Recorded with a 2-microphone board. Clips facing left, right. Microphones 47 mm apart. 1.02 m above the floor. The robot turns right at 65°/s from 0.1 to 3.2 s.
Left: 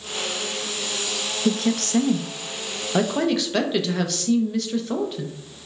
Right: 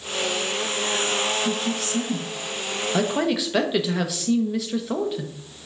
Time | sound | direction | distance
1.4 | a woman speaking | 75° left | 0.6 m